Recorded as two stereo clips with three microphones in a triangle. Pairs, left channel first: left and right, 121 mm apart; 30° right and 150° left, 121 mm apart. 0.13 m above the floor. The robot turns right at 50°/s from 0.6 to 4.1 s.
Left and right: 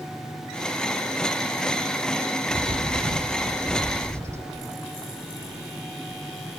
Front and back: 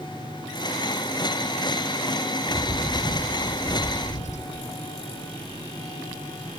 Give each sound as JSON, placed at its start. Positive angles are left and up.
{"t": 2.5, "sound": "a bird", "azimuth_deg": -105, "distance_m": 2.5}